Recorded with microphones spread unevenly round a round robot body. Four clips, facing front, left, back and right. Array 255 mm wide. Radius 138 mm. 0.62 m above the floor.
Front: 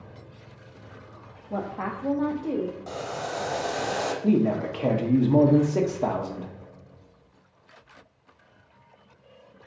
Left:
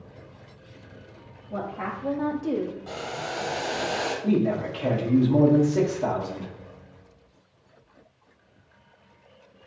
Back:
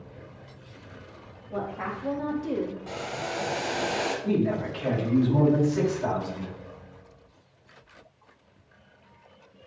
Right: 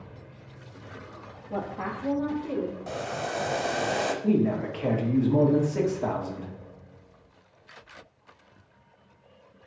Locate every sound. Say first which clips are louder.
1.5 s a woman speaking: left 1 dB, front 1 dB; 20° right, 1.3 m; by 2.8 s 115° left, 1.2 m
2.9 s boiling: right 1 dB, front 1 dB; 60° right, 1.1 m
4.2 s a man speaking: left 2 dB, front 5 dB; 5° left, 1.5 m